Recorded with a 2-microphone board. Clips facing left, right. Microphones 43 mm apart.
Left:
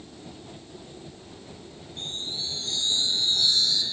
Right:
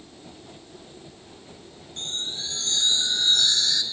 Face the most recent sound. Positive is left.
turn(degrees=-75)  # may be behind; listen again after turning